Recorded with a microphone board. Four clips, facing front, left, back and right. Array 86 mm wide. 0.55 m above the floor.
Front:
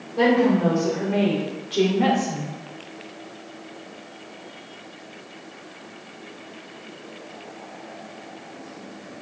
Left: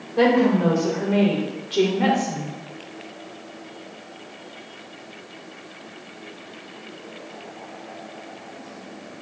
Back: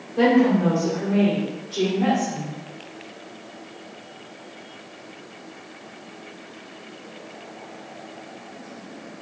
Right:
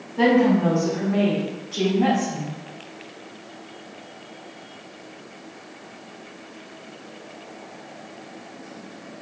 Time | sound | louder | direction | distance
0.2 | a woman speaking | even, back 1 dB | 100° left | 2.5 m